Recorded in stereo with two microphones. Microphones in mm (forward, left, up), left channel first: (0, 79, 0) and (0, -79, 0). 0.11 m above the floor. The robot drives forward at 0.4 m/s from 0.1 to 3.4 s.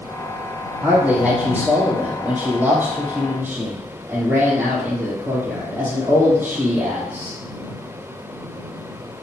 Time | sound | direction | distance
0.8 | a man speaking | 10° right (ahead or behind) | 3.5 m